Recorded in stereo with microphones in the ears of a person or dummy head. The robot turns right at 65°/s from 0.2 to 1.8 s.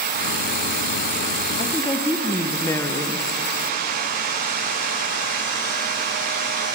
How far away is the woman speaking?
About 0.7 m.